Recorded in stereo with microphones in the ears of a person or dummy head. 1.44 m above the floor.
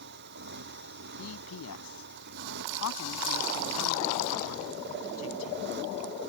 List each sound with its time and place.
0.0 s a motorcycle: 55° right (ahead or behind)
1.2 s a man speaking: 80° left